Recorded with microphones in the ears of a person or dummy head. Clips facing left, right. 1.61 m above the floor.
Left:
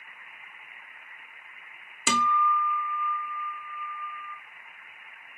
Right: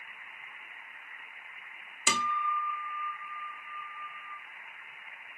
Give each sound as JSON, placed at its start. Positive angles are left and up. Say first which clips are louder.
{"t": 2.1, "sound": "a guitar", "louder": "left 7 dB", "side_deg": 50, "distance_m": 0.6}